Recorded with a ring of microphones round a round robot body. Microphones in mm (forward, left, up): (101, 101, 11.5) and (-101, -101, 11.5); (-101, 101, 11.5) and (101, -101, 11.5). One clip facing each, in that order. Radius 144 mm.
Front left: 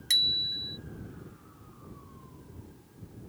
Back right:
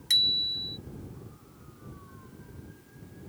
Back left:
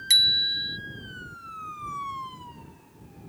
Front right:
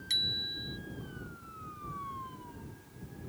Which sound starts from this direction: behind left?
A bicycle bell, at 0.1 s.